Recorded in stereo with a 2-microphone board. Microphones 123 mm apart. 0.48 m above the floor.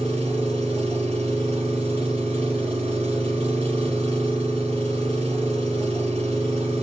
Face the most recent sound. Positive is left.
turn(degrees=-55)  # may be behind; listen again after turning